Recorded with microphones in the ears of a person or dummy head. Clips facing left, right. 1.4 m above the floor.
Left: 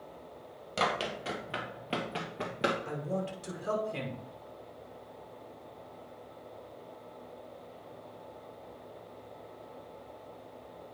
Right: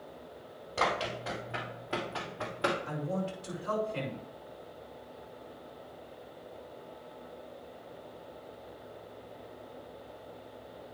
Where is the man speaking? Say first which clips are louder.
Even; 70° left (ahead or behind), 5.5 m.